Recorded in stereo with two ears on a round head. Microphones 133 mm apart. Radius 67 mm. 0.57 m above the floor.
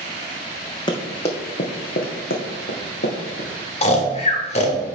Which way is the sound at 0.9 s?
30° left (ahead or behind).